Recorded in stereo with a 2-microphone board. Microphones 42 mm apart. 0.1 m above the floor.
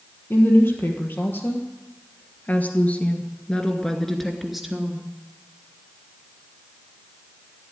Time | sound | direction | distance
0.3 | a woman speaking | 60° left (ahead or behind) | 3 m